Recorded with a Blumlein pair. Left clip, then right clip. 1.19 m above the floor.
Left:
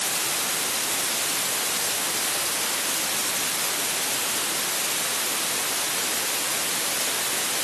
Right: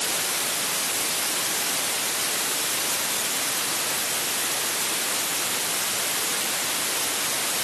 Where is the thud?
I don't hear a thud.